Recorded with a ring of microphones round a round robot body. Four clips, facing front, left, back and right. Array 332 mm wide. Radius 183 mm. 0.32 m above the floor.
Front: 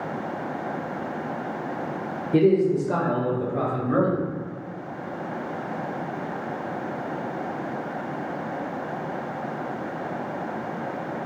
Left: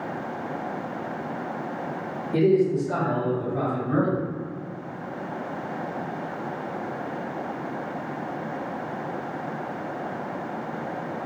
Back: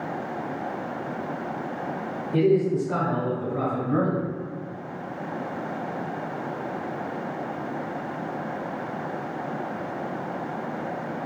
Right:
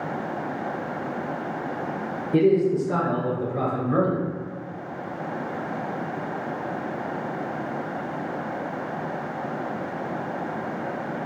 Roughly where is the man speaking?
Ahead.